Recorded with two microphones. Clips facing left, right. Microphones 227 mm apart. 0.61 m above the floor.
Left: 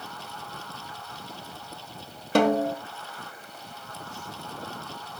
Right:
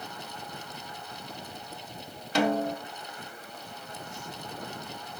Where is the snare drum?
55° left (ahead or behind), 1.2 m.